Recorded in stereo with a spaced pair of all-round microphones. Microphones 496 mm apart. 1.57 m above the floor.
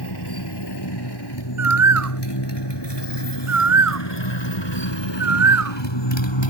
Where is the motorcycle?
55° left (ahead or behind); by 6.5 s 70° left (ahead or behind).